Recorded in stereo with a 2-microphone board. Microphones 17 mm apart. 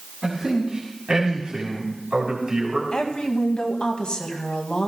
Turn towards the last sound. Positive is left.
turn(degrees=70)  # may be behind; listen again after turning